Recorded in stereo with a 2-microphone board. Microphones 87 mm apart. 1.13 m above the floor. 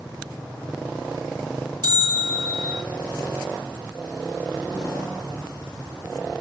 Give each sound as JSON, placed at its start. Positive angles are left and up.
{"t": 1.8, "sound": "a bell", "side_deg": -50, "distance_m": 1.1}